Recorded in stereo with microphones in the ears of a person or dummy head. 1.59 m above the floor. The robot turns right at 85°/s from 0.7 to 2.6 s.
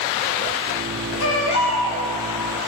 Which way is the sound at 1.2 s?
95° left.